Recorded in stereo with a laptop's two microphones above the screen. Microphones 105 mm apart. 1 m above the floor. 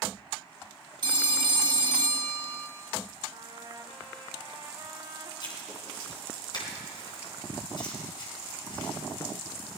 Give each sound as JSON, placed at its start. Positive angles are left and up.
{"t": 1.0, "sound": "a phone ringing", "side_deg": -45, "distance_m": 1.3}
{"t": 3.3, "sound": "a trumpet", "side_deg": -50, "distance_m": 1.2}
{"t": 5.4, "sound": "writing", "side_deg": 45, "distance_m": 3.0}